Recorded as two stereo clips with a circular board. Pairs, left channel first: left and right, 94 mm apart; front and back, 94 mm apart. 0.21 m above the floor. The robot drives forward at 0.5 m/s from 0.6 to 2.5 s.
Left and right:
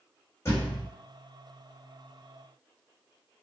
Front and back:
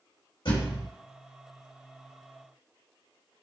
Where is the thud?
30° left, 1.7 m.